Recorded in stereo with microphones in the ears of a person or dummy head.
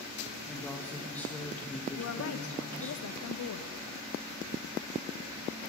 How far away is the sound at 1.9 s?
About 0.6 m.